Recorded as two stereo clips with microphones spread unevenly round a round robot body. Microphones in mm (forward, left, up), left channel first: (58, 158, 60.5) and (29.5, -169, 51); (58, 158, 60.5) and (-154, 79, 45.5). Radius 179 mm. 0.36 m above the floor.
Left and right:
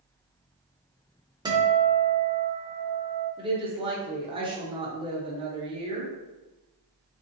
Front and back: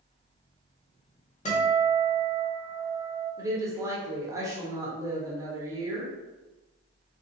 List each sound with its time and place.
1.4 s a guitar: 25° right, 0.9 m
3.4 s a woman speaking: 130° right, 0.9 m